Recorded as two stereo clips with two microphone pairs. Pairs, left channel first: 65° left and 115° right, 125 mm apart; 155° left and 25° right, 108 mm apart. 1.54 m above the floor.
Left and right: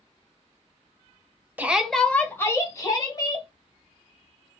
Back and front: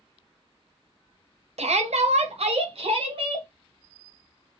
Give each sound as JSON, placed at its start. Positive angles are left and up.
{"t": 1.6, "sound": "a shout", "azimuth_deg": -40, "distance_m": 0.7}